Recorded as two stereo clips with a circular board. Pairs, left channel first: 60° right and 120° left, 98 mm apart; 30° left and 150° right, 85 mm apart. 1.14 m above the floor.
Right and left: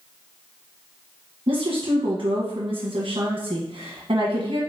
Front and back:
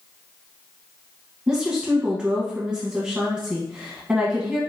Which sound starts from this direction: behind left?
A woman speaking, at 1.5 s.